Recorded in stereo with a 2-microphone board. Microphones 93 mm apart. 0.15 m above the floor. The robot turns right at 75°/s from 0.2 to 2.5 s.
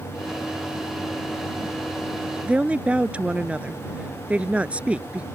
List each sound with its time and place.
2.5 s a woman speaking: 10° right (ahead or behind); by 5.2 s 15° right (ahead or behind)